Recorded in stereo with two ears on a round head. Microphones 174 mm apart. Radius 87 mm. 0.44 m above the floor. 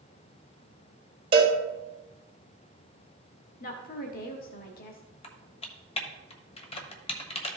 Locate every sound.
1.3 s a cowbell: 30° right (ahead or behind), 1.8 m
3.6 s a woman speaking: 50° left (ahead or behind), 1.1 m
5.2 s typing on a keyboard: 30° left (ahead or behind), 1.2 m